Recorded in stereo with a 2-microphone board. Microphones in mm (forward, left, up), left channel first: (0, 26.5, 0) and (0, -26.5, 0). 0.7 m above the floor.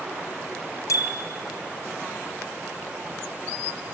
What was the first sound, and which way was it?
A bicycle bell, 70° left (ahead or behind).